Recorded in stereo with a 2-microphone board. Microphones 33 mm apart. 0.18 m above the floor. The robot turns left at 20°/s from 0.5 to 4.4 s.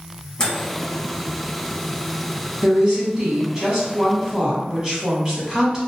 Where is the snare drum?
I don't hear a snare drum.